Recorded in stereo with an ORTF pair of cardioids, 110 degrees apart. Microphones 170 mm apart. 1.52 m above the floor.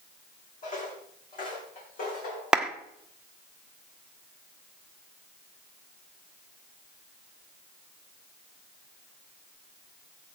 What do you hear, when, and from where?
0.6 s footsteps: 50° left, 5 m; by 2.4 s 60° left, 5.5 m
2.5 s a clap: 5° right, 1.2 m